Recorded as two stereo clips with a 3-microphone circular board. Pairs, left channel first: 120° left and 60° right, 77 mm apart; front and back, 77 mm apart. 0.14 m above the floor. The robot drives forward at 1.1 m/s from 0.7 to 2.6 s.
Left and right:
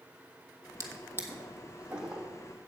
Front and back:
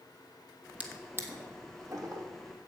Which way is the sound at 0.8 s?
105° right.